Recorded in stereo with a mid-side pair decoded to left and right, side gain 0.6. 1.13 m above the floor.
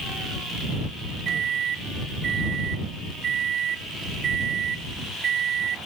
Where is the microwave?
45° right.